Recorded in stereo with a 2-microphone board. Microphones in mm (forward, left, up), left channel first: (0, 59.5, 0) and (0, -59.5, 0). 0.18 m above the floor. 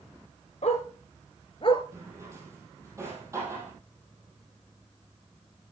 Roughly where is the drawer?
Right.